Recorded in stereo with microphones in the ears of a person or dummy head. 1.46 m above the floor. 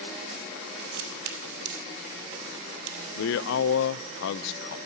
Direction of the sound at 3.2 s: 70° left (ahead or behind).